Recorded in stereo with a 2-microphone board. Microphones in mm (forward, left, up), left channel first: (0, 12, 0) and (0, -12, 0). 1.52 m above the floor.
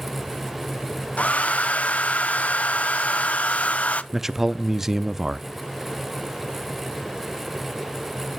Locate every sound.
1.2 s a hair dryer: 75° left (ahead or behind), 0.6 m
4.1 s a man speaking: 15° right (ahead or behind), 0.5 m